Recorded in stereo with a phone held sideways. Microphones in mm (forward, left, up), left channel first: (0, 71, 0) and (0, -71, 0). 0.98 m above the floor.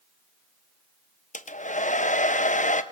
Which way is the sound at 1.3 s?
60° left (ahead or behind).